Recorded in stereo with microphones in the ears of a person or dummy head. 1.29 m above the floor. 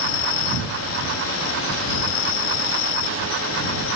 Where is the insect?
75° left (ahead or behind).